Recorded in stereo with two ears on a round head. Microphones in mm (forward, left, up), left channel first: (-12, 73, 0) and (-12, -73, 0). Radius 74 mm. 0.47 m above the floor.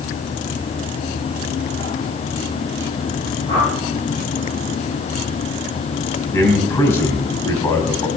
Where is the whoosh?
35° left (ahead or behind), 8.5 m.